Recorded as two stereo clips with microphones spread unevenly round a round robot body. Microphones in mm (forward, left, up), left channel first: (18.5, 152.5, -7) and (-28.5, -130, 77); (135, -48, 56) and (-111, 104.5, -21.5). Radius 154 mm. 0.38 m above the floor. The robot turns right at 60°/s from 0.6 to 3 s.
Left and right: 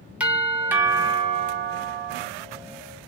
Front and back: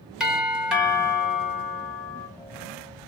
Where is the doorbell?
130° left, 1.2 m; by 2.3 s 125° right, 1.2 m.